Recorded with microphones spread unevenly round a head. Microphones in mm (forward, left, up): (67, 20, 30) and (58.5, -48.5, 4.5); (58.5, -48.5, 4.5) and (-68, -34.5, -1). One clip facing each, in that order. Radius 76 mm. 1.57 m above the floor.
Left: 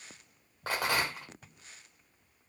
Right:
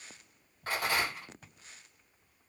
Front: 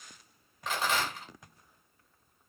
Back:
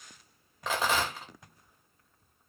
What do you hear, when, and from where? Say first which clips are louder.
0.7 s a rattle: left 1 dB, back 2 dB; 135° left, 0.7 m